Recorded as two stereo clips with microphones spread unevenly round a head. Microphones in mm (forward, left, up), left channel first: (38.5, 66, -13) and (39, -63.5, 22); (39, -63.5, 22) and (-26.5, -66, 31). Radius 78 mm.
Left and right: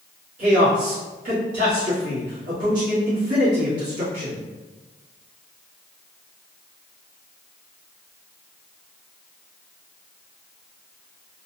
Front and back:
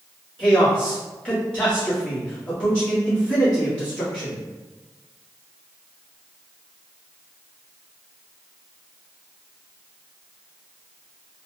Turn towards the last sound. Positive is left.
turn(degrees=-70)